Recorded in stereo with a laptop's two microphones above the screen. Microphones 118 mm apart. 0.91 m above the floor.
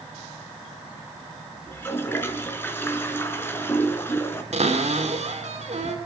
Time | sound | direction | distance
1.7 | a toilet flushing | 20° left (ahead or behind) | 4 m
4.5 | a cupboard door | 75° right (ahead or behind) | 3.5 m